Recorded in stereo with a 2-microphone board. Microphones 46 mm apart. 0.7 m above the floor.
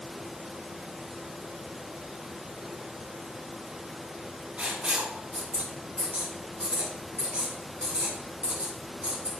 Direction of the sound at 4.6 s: 25° right (ahead or behind).